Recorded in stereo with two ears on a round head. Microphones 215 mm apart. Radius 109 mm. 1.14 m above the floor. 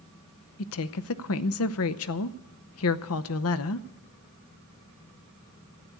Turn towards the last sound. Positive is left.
turn(degrees=65)  # may be behind; listen again after turning